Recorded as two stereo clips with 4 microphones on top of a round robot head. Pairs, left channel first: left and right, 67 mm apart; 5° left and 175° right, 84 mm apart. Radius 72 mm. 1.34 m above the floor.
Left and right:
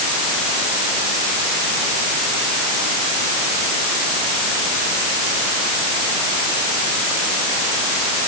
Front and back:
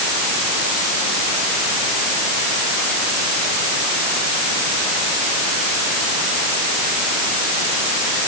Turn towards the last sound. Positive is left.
No sound to turn to.